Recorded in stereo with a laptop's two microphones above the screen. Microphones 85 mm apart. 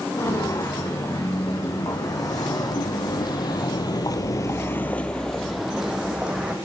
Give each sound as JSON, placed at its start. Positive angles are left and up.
{"t": 0.1, "sound": "footsteps", "side_deg": 40, "distance_m": 6.0}